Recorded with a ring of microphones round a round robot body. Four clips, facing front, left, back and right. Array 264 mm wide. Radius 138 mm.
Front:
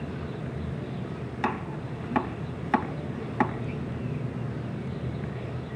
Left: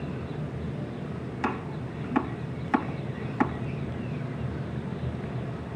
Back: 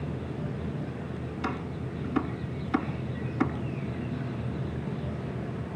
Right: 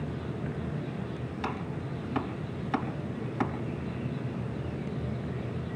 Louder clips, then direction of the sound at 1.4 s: Left 5 dB, front 5 dB; 15° left.